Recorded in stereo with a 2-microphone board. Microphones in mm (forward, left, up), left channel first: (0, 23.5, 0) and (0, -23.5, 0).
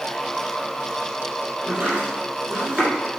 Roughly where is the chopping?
Right.